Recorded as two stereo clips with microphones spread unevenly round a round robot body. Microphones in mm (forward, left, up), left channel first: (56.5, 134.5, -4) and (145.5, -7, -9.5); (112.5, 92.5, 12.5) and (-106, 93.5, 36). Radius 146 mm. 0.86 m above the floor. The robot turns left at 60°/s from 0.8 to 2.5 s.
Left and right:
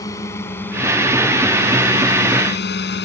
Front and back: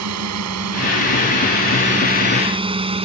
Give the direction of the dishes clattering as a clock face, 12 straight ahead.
No dishes clattering in this recording.